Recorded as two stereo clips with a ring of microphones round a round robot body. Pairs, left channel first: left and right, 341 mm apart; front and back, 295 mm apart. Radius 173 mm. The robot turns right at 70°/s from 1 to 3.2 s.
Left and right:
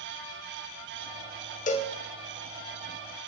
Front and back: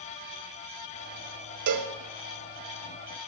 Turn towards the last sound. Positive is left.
turn(degrees=-95)